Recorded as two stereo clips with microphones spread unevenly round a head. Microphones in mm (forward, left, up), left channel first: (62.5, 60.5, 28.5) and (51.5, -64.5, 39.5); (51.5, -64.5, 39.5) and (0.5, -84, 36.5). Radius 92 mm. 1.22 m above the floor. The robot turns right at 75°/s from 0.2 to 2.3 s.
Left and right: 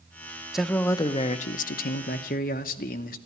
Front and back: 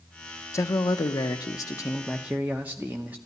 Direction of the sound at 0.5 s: 10° right.